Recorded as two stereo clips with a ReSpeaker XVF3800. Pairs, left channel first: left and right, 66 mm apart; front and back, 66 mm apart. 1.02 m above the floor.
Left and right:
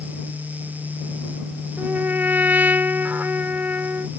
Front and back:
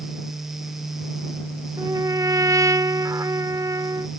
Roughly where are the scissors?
I don't hear scissors.